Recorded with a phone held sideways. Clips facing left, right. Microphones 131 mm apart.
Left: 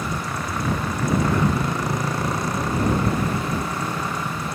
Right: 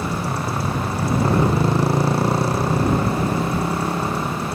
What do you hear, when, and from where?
0.0 s a motorcycle: 35° right (ahead or behind)